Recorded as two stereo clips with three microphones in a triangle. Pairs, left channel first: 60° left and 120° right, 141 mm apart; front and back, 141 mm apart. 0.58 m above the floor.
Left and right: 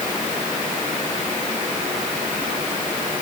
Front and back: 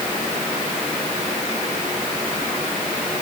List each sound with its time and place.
Only background noise.